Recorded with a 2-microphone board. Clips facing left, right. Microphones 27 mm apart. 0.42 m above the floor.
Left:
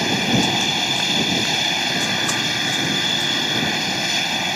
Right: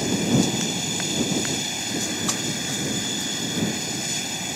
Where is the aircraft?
35° left (ahead or behind).